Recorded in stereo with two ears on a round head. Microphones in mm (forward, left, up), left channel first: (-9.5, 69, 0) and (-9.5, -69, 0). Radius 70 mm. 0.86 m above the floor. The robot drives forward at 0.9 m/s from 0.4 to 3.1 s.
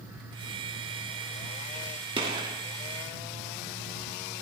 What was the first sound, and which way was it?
A gunshot, 35° right (ahead or behind).